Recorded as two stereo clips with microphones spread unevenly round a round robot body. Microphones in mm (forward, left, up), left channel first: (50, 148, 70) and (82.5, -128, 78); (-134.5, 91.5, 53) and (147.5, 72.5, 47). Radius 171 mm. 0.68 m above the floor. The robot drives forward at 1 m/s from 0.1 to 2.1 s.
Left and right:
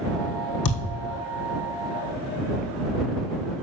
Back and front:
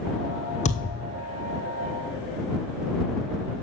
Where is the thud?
115° left, 1.3 m; by 1.1 s 130° left, 1.5 m.